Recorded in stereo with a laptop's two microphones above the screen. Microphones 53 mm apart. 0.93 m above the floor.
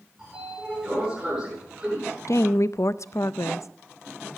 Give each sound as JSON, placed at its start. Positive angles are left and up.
{"t": 0.2, "sound": "a sliding door", "side_deg": -10, "distance_m": 9.0}
{"t": 2.3, "sound": "a woman speaking", "side_deg": 65, "distance_m": 0.5}